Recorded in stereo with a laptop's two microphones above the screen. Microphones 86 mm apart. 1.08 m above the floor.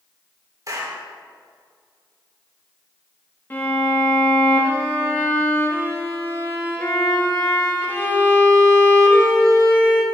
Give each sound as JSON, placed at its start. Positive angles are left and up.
{"t": 0.7, "sound": "a clap", "side_deg": -45, "distance_m": 3.5}
{"t": 3.5, "sound": "a violin", "side_deg": 25, "distance_m": 1.6}